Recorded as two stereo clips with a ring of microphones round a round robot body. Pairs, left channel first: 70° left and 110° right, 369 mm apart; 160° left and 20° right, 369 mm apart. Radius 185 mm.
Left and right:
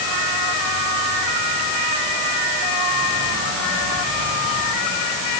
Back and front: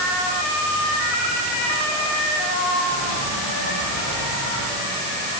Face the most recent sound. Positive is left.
No sound to turn to.